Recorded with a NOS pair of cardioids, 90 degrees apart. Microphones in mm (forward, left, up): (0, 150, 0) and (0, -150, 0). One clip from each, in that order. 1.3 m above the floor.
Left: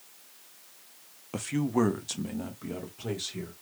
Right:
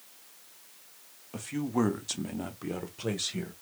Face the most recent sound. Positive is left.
turn(degrees=-35)